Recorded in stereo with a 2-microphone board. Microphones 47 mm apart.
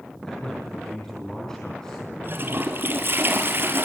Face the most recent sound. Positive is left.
turn(degrees=-50)  # may be behind; listen again after turning